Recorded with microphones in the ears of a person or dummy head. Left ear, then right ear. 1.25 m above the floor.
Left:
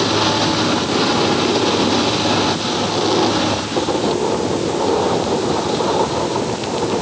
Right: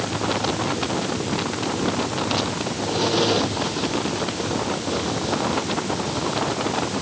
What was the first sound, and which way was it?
Only background noise.